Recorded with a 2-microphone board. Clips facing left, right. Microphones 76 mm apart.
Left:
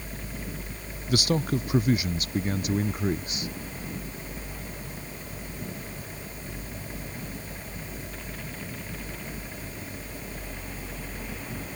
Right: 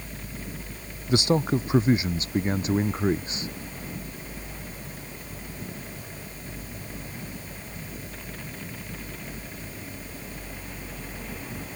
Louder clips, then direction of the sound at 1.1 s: Right 3 dB; 25° right (ahead or behind).